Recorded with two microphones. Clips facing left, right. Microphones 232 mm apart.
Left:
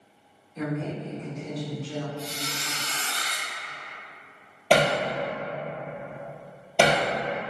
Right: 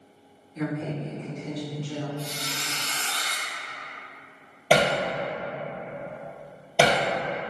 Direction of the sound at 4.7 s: 5° right (ahead or behind).